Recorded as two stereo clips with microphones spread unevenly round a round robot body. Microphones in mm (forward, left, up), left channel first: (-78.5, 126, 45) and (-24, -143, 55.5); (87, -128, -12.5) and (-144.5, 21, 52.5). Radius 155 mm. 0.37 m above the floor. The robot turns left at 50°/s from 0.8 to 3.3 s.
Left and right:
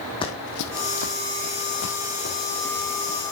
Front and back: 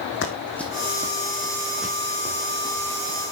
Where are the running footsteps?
25° left, 1.1 m; by 3.2 s 5° left, 4 m.